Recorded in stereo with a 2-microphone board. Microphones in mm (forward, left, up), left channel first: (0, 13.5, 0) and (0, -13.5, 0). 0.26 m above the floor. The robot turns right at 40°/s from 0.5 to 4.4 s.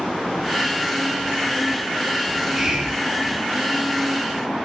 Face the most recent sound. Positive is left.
turn(degrees=35)